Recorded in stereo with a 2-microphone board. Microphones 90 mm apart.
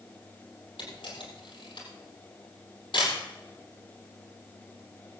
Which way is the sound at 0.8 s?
65° left (ahead or behind).